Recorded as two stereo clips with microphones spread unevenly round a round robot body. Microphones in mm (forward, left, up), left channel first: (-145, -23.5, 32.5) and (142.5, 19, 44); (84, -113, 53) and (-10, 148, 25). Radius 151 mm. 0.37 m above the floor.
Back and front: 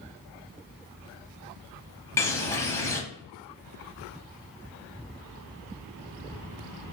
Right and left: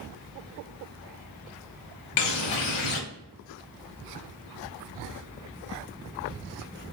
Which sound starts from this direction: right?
A bird, at 2.2 s.